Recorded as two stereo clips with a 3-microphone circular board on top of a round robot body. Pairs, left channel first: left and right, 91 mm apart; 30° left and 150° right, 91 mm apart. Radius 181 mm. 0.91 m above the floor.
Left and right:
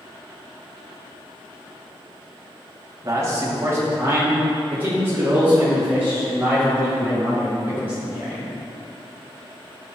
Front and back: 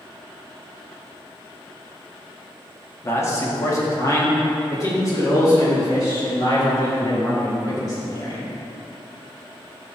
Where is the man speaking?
30° right, 1.9 m; by 8.5 s 20° right, 7 m.